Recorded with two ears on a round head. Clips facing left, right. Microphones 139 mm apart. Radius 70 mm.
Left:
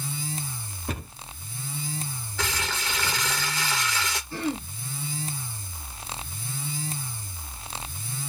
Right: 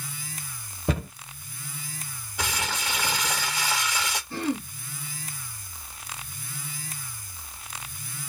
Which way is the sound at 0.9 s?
70° right (ahead or behind).